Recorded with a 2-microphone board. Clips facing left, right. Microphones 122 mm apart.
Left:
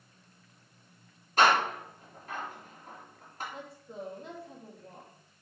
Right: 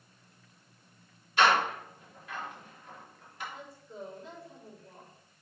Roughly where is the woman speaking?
Left.